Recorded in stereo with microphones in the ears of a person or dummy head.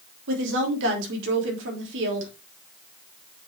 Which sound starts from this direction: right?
A woman speaking, at 0.3 s.